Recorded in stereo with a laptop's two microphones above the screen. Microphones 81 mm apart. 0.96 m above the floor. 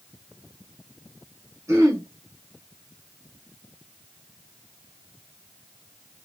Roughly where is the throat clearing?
Right.